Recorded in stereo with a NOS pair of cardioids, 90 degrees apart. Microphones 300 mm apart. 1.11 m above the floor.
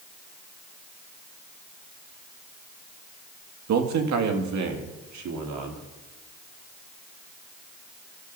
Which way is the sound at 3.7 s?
65° right.